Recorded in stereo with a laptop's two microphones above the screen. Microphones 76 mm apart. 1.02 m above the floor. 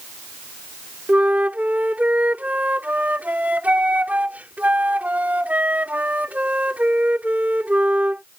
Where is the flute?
20° right (ahead or behind).